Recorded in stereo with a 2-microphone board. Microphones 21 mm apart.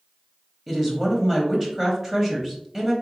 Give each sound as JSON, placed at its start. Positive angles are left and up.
{"t": 0.7, "sound": "a woman speaking", "side_deg": -15, "distance_m": 1.0}